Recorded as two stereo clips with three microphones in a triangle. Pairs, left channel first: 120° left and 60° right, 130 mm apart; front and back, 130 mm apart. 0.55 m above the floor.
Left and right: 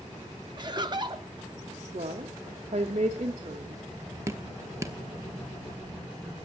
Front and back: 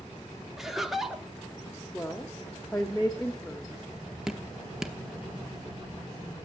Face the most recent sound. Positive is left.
turn(degrees=-100)